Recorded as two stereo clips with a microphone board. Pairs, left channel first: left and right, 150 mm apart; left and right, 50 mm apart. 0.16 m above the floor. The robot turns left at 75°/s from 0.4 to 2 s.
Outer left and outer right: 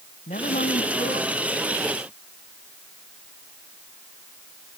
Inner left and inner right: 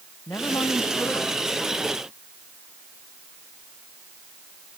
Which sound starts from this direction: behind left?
A woman speaking, at 0.3 s.